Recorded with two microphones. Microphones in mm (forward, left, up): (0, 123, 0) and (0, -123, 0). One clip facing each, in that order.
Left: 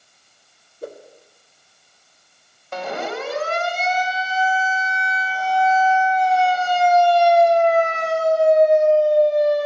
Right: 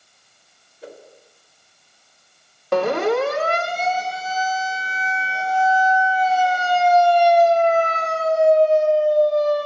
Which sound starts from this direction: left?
A whoosh, at 0.8 s.